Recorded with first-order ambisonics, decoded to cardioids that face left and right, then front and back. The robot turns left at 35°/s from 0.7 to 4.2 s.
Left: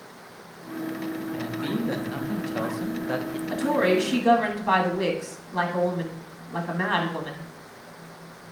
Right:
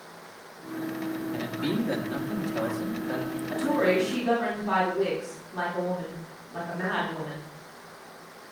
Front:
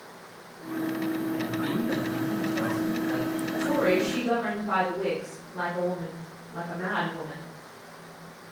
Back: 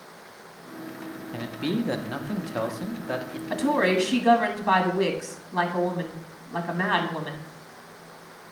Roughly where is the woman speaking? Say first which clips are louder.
Left 2 dB, back 3 dB; behind.